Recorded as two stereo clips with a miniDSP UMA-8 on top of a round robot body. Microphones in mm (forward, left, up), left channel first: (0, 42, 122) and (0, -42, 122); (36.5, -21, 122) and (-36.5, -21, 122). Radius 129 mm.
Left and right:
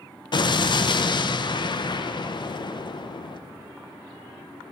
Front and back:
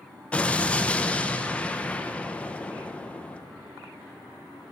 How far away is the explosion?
About 0.6 m.